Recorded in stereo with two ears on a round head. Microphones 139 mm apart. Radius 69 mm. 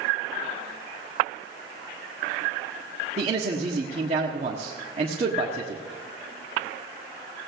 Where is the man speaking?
45° right (ahead or behind), 1.5 m.